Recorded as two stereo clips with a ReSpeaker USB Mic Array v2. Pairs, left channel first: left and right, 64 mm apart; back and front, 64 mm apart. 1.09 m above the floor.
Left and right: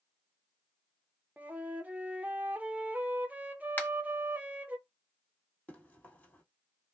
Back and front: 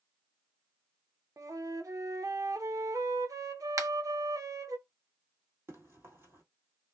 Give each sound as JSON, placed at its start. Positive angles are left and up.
{"t": 1.4, "sound": "a flute", "azimuth_deg": -25, "distance_m": 0.5}
{"t": 3.8, "sound": "a finger snap", "azimuth_deg": 30, "distance_m": 0.6}
{"t": 5.7, "sound": "running footsteps", "azimuth_deg": 35, "distance_m": 1.6}